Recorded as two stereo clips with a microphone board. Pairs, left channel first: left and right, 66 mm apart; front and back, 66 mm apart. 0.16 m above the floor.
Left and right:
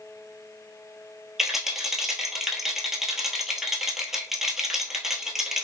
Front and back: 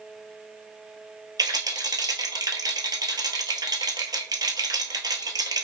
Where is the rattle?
175° right, 0.8 m.